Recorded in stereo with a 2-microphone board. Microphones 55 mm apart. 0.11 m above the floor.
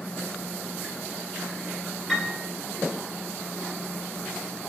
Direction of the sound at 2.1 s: 5° left (ahead or behind).